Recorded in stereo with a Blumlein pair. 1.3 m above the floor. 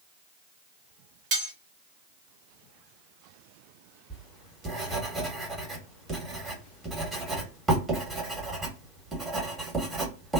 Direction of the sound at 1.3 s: 40° right.